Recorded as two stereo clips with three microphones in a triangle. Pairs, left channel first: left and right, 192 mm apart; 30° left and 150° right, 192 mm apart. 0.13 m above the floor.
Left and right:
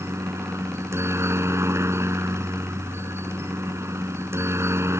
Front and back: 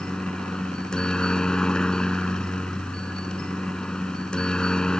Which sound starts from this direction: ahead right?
A helicopter, at 0.0 s.